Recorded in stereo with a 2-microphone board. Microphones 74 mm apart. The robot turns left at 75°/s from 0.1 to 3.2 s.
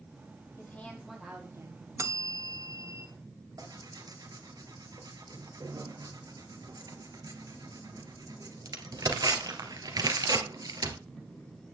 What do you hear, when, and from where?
0.6 s a woman speaking: 35° left, 5.5 m; by 1.9 s 60° right, 5.5 m
2.0 s a bell: 50° right, 0.9 m; by 3.1 s 135° right, 0.9 m
3.6 s tearing paper: 60° right (ahead or behind), 2.0 m